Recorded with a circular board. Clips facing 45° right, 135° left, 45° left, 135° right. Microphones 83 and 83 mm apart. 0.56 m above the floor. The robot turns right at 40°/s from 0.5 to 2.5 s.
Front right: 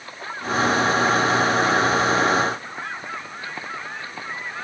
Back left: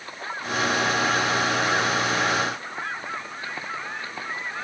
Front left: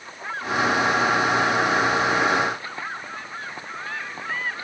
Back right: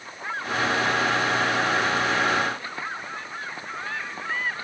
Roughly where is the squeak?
No squeak in this recording.